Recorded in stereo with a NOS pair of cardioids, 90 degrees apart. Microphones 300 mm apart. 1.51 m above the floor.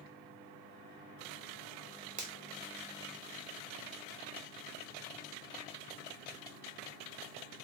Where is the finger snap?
25° right, 0.9 m.